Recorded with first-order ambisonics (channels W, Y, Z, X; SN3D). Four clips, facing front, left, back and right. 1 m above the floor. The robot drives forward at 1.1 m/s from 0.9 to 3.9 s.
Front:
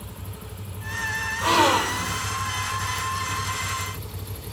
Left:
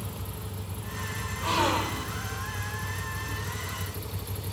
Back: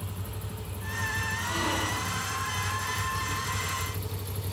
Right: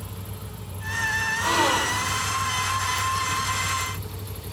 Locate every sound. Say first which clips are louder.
1.4 s a gasp: right 2 dB, front 14 dB; 10° right, 2 m; by 2.2 s 20° right, 1.3 m